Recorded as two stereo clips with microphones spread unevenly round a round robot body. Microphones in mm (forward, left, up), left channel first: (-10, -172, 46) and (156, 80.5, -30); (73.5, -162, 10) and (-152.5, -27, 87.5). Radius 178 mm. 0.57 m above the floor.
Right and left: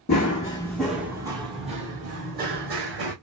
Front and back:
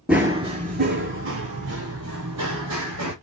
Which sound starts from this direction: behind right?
Running footsteps, at 0.1 s.